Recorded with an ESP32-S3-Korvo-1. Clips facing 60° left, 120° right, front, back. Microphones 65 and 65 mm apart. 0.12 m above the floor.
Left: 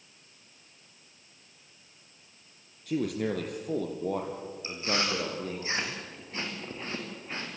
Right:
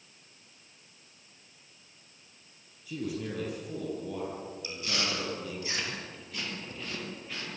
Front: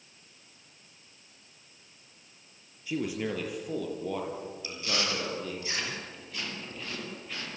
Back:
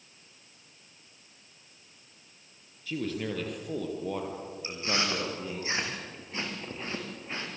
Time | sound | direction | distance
2.9 | a man speaking | 70° left | 3.5 m
4.6 | chewing | 120° left | 6 m